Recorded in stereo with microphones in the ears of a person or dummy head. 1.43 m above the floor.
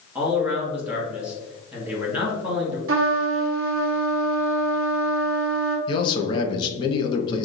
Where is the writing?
I don't hear writing.